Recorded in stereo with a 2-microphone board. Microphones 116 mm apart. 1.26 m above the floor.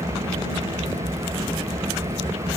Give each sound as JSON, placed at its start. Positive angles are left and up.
{"t": 0.0, "sound": "an engine running", "side_deg": -85}